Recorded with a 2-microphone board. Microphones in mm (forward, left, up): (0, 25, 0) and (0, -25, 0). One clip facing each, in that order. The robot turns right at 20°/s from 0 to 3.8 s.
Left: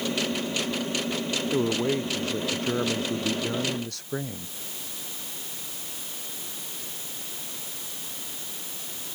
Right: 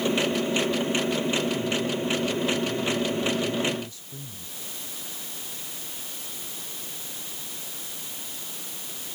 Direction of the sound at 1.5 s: 65° left.